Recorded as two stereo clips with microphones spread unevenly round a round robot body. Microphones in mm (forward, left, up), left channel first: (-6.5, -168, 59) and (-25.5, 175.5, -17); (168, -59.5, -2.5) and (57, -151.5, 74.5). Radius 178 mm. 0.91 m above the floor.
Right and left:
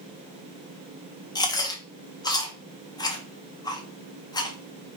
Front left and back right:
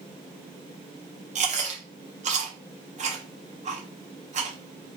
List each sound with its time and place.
1.4 s chewing: straight behind, 0.9 m